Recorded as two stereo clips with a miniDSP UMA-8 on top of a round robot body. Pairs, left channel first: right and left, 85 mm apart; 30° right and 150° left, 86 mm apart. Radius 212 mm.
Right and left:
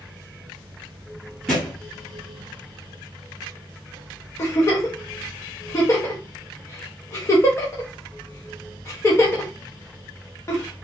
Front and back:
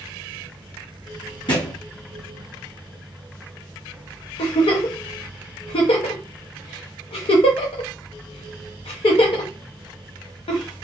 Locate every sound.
1.5 s a thud: 10° right, 1.7 m
4.4 s a giggle: 35° right, 0.6 m